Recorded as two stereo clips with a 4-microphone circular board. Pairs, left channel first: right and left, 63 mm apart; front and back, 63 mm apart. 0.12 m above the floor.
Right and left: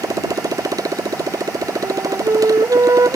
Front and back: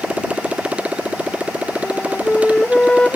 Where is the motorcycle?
105° left; by 3.2 s 110° left.